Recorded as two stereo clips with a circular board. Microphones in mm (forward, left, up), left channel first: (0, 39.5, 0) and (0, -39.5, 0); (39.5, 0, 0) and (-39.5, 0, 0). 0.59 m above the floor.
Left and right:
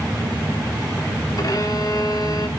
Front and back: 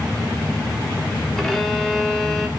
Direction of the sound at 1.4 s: 85° left.